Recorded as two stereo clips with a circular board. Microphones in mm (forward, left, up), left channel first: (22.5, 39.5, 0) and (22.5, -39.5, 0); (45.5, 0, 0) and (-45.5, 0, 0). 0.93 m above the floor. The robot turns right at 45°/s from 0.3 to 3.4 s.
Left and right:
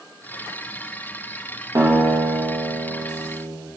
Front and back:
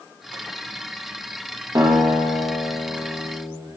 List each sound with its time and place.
1.8 s a guitar: 130° right, 1.2 m; by 3.6 s 55° right, 1.2 m